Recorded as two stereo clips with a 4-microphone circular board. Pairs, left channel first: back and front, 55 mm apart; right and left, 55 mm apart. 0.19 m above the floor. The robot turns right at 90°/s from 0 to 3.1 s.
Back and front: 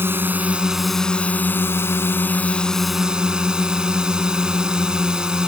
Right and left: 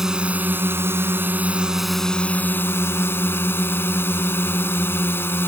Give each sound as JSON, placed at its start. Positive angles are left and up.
{"t": 0.0, "sound": "a drone", "azimuth_deg": 10}